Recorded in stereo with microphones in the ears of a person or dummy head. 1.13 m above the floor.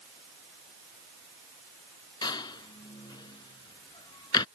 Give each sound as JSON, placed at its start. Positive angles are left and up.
{"t": 2.2, "sound": "a door slam", "side_deg": 25}